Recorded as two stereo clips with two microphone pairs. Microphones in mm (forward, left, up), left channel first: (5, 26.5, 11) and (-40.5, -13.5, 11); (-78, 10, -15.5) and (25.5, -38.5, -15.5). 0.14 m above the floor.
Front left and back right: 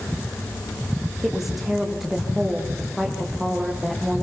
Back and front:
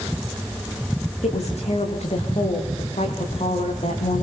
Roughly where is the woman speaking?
Behind left.